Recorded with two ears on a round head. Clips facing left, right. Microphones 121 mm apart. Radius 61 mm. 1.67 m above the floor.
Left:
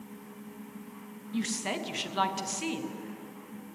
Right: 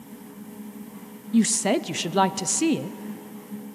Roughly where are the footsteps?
I don't hear footsteps.